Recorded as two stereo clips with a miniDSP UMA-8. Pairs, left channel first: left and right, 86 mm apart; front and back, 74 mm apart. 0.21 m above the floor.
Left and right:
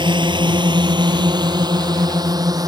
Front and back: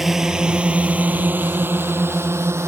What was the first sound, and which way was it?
A drone, 95° right.